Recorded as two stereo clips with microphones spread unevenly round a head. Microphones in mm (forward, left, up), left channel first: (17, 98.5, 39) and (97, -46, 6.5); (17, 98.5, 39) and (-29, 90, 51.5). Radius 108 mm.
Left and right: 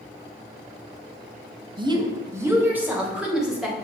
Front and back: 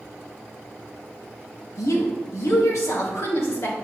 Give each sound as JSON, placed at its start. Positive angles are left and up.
{"t": 1.8, "sound": "a woman speaking", "azimuth_deg": 0, "distance_m": 1.4}